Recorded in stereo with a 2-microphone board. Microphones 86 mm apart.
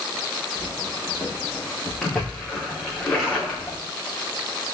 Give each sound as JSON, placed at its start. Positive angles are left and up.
{"t": 0.6, "sound": "footsteps", "side_deg": 20, "distance_m": 4.0}
{"t": 2.0, "sound": "a splash", "side_deg": 5, "distance_m": 5.5}